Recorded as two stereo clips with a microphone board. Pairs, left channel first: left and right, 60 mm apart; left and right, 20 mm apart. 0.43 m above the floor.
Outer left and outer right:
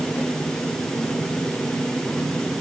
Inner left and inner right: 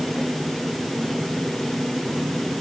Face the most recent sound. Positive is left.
No sound to turn to.